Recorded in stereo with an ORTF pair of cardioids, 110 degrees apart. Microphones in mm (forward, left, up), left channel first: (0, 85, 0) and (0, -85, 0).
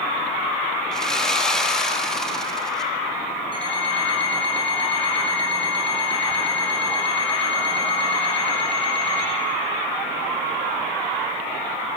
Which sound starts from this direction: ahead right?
An alarm clock, at 3.5 s.